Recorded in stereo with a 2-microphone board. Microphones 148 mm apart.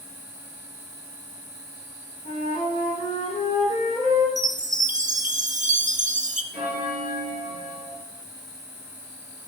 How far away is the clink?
I don't hear a clink.